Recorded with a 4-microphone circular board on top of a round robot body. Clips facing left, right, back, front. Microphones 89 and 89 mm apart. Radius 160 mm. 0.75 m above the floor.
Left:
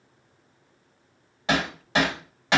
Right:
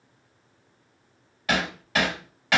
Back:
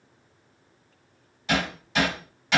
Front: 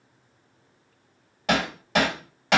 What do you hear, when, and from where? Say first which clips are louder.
1.5 s hammering: left 1 dB, front 3 dB; 25° left, 1.5 m